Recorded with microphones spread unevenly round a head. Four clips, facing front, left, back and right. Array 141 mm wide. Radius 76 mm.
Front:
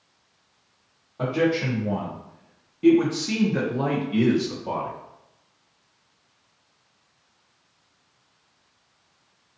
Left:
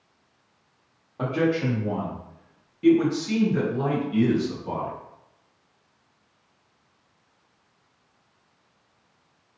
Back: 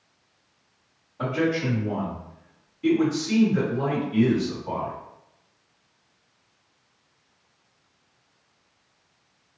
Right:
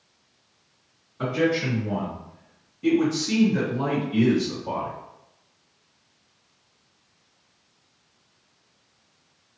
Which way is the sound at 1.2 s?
55° left.